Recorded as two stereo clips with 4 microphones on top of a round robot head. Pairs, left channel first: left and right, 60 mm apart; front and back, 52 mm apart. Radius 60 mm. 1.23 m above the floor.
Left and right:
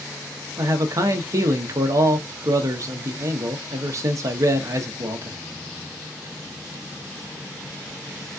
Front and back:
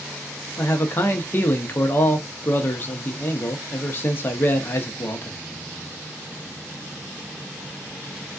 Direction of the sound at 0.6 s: 55° right.